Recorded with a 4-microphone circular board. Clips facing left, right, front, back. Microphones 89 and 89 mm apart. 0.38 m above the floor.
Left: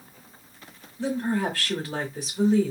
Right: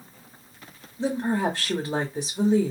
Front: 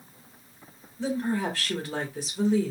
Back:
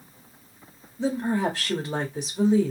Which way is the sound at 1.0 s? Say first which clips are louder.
Right 1 dB, back 3 dB; 135° right.